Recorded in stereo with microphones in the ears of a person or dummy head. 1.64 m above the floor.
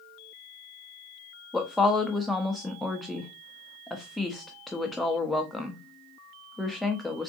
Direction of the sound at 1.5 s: Centre (ahead or behind).